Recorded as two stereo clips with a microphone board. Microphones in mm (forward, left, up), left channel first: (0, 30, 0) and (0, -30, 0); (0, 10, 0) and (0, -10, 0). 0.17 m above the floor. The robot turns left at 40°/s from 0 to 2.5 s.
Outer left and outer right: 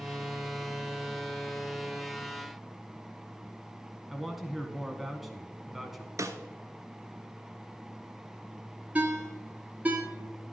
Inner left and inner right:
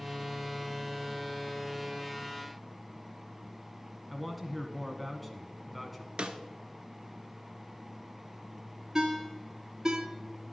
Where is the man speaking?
Centre (ahead or behind), 1.3 m.